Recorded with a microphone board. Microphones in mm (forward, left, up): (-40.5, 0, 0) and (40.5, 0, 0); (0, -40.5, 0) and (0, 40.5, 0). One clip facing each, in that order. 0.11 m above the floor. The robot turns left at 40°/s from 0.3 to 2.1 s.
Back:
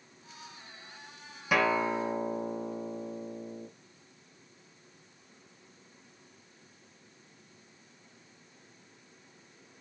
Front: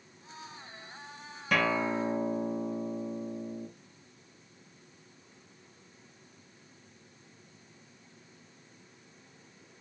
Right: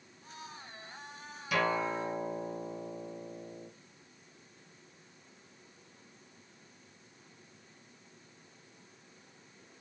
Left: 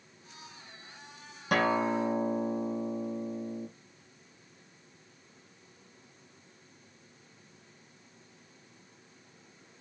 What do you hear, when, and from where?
1.5 s a guitar: 100° left, 2 m; by 3.7 s 80° left, 2 m